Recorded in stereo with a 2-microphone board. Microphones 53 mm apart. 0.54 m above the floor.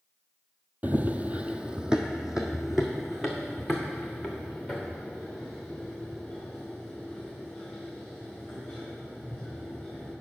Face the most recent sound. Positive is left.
turn(degrees=5)  # may be behind; listen again after turning